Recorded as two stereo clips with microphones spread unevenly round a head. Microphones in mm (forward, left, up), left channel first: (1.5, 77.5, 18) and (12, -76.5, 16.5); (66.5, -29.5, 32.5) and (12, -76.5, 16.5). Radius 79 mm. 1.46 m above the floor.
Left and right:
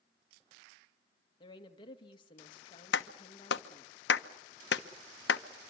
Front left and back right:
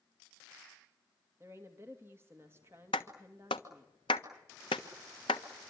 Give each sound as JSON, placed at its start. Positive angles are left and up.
{"t": 1.4, "sound": "a woman speaking", "azimuth_deg": 155, "distance_m": 2.5}
{"t": 2.9, "sound": "a clap", "azimuth_deg": 85, "distance_m": 1.2}